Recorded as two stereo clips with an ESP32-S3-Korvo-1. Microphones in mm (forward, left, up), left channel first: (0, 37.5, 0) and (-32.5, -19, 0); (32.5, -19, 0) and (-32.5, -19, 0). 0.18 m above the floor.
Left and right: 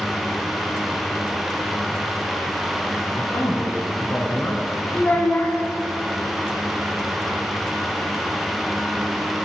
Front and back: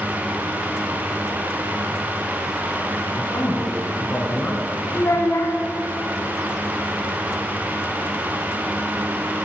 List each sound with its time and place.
3.1 s a man speaking: 30° left, 1.4 m
4.9 s a child speaking: 10° left, 0.9 m